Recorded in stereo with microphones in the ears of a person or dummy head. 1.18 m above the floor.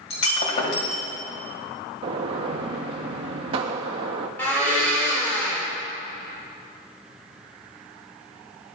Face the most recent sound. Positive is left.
turn(degrees=10)  # may be behind; listen again after turning